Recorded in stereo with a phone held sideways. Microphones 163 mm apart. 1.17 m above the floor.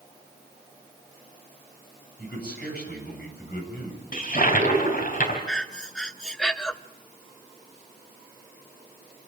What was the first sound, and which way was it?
A man speaking, 75° left (ahead or behind).